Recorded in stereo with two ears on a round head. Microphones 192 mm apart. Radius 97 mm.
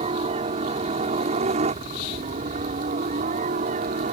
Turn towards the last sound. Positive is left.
turn(degrees=-35)  # may be behind; listen again after turning